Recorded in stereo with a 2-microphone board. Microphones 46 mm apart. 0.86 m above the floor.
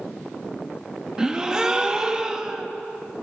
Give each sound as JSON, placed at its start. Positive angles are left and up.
{"t": 1.2, "sound": "a gasp", "side_deg": -15, "distance_m": 1.5}